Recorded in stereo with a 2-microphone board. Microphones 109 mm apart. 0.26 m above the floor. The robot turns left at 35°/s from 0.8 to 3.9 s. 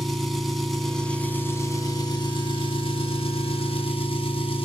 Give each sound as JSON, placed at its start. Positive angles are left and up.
{"t": 0.0, "sound": "an engine running", "azimuth_deg": 180, "distance_m": 1.5}